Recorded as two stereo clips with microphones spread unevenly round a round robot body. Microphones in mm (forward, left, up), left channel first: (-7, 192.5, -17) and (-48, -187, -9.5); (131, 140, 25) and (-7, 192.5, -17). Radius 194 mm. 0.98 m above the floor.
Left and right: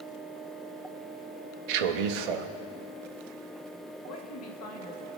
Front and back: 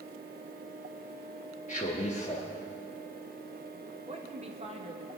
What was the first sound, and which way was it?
A man speaking, 95° right.